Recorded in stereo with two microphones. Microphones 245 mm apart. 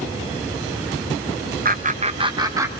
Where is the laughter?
35° right (ahead or behind), 0.7 m; by 2.7 s 10° right (ahead or behind), 1.2 m.